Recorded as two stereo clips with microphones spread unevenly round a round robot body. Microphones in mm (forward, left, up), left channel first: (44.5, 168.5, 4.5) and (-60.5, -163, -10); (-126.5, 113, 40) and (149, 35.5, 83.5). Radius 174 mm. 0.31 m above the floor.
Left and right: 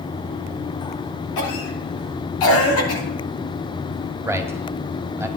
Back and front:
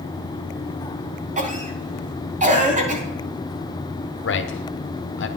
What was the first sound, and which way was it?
A cough, 50° left.